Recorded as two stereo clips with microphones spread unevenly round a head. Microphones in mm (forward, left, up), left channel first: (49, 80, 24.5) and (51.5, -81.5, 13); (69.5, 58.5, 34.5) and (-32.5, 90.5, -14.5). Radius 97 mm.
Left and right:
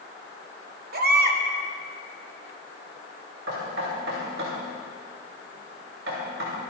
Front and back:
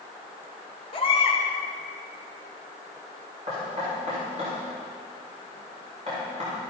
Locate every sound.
0.9 s a baby crying: 65° right, 2.5 m
3.5 s knocking: 130° right, 6.5 m